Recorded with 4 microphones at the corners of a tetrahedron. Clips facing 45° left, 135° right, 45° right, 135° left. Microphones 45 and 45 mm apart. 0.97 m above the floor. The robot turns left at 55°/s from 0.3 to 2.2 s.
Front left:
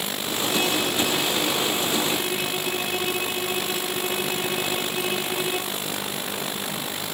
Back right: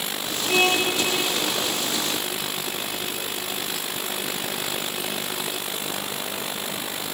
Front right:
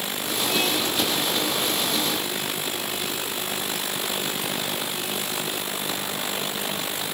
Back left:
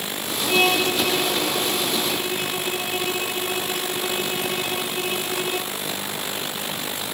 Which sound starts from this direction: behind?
A violin, at 0.5 s.